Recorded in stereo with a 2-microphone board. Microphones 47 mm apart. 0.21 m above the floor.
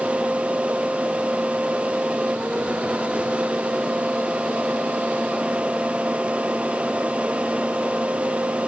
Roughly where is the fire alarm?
I don't hear a fire alarm.